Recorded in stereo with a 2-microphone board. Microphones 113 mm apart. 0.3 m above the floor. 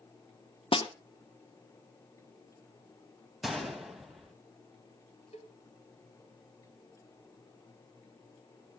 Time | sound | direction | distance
0.7 | a snare drum | 50° left (ahead or behind) | 1.2 m
3.4 | a gunshot | centre (ahead or behind) | 2 m
5.3 | a cowbell | 65° left (ahead or behind) | 1.3 m